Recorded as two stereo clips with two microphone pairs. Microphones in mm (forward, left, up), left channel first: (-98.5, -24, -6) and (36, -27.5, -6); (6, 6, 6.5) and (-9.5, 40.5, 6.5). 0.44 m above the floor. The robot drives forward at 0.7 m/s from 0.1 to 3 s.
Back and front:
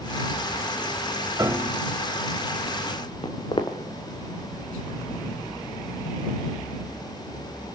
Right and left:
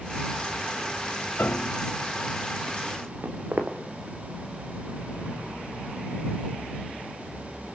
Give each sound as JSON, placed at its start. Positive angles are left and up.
{"t": 1.4, "sound": "a piano", "azimuth_deg": -65, "distance_m": 0.9}
{"t": 3.2, "sound": "footsteps", "azimuth_deg": 130, "distance_m": 3.0}